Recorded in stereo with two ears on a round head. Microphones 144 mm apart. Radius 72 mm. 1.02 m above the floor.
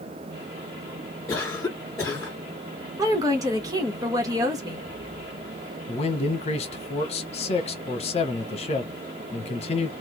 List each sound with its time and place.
1.3 s a cough: 20° left (ahead or behind), 2.5 m
3.0 s a woman speaking: 25° right (ahead or behind), 1.4 m
5.9 s a man speaking: 40° left (ahead or behind), 1.0 m